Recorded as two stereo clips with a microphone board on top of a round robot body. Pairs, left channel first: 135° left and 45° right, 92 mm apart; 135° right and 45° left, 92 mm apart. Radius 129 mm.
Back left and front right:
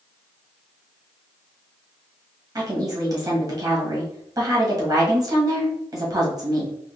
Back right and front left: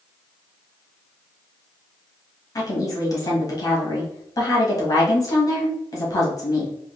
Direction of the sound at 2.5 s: 90° right.